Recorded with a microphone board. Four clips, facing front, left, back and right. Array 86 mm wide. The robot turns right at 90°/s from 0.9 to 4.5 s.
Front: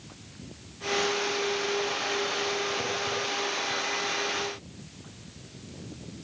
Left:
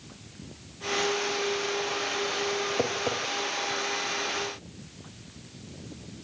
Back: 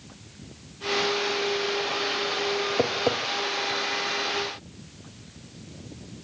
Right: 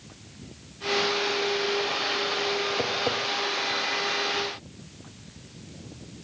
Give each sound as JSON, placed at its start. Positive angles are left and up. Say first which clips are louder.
{"t": 2.8, "sound": "tapping", "louder": "right 1 dB, back 6 dB", "azimuth_deg": 165, "distance_m": 4.0}